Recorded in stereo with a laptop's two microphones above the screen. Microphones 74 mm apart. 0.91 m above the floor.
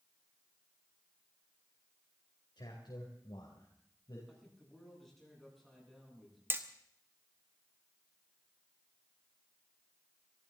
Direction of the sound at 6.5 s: 30° right (ahead or behind).